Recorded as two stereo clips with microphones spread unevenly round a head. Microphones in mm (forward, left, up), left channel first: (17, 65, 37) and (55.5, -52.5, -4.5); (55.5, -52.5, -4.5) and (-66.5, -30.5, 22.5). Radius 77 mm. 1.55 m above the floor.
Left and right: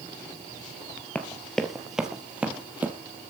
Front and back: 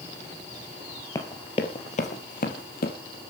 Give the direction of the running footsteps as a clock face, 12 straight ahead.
10 o'clock.